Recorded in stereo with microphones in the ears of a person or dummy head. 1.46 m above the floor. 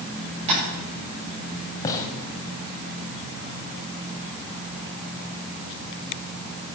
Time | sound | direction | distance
0.5 | tapping | 35° right (ahead or behind) | 10 m
1.8 | a gunshot | 25° left (ahead or behind) | 2 m